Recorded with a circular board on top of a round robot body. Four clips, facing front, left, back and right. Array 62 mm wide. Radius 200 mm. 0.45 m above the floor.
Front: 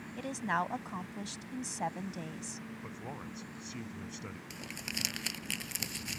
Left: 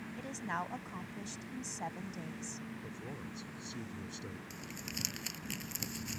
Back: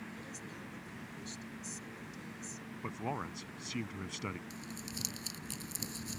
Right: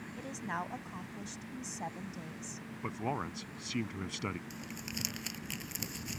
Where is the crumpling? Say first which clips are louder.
Right 2 dB, front 3 dB; 5° right.